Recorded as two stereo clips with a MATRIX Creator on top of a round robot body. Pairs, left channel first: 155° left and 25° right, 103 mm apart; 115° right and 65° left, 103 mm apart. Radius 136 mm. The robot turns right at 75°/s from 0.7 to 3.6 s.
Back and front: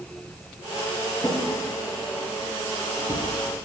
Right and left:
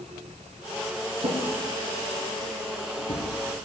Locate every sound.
1.2 s a drawer: 80° left, 5 m; by 3.3 s 125° right, 5 m